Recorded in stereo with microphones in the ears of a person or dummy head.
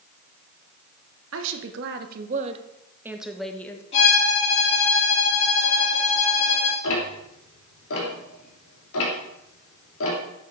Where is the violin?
30° left (ahead or behind), 5 m.